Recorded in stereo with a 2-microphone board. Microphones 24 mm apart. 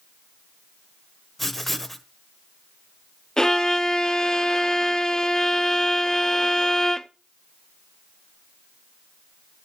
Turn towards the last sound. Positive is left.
turn(degrees=20)  # may be behind; listen again after turning